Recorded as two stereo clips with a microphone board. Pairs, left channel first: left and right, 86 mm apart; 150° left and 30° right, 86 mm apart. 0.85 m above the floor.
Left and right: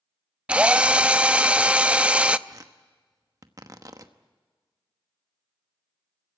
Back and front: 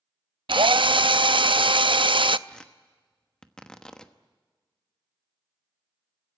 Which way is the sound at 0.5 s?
15° right.